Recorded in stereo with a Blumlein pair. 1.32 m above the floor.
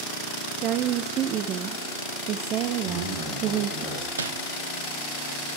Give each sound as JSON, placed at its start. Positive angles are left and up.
{"t": 0.6, "sound": "a woman speaking", "azimuth_deg": -35, "distance_m": 0.6}
{"t": 2.9, "sound": "a man speaking", "azimuth_deg": 30, "distance_m": 8.0}
{"t": 4.2, "sound": "crumpling", "azimuth_deg": -70, "distance_m": 1.1}